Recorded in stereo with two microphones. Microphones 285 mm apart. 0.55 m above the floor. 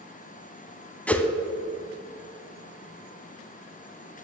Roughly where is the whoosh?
Centre.